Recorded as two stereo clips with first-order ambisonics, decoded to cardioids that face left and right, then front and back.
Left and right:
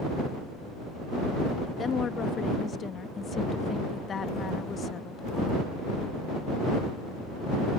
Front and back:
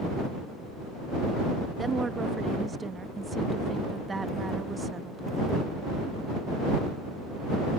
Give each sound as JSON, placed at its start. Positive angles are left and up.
{"t": 1.8, "sound": "a woman speaking", "azimuth_deg": 120}